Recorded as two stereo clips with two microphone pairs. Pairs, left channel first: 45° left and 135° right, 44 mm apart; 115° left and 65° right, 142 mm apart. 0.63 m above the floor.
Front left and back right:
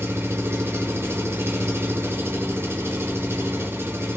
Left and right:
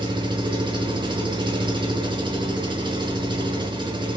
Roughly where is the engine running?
Behind right.